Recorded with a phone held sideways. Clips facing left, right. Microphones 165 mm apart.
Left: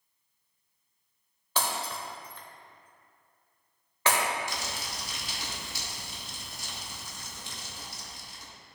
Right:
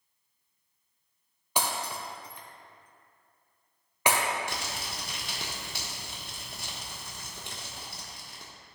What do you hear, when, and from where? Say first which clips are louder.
1.6 s breaking glass: even; 15° right (ahead or behind), 1.0 m
4.5 s crumpling: even; 60° right (ahead or behind), 1.2 m